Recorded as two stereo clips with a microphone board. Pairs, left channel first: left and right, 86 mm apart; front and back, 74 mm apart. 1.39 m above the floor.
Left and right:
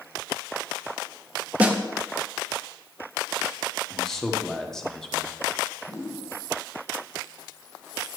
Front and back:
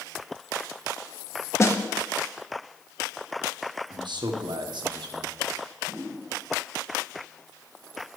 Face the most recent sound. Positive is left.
turn(degrees=130)